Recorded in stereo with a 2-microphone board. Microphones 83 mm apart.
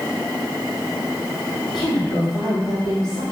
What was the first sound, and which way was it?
A woman speaking, 65° left (ahead or behind).